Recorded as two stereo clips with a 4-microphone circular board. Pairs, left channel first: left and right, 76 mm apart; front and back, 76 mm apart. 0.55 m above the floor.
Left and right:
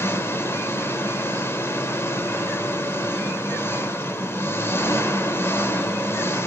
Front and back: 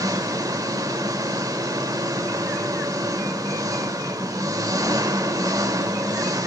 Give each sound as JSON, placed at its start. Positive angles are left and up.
{"t": 0.0, "sound": "an engine running", "azimuth_deg": 145, "distance_m": 1.5}